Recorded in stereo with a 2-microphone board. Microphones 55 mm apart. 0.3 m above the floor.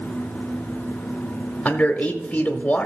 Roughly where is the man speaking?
Left.